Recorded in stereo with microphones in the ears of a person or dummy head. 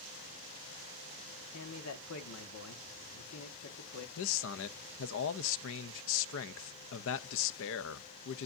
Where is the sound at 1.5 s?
75° left (ahead or behind), 1.6 m.